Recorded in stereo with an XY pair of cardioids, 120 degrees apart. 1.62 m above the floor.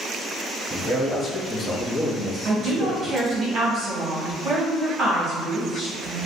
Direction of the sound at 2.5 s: 30° right.